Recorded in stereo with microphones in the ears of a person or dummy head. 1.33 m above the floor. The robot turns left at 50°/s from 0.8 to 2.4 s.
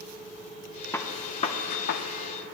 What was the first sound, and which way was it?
A gunshot, 20° left (ahead or behind).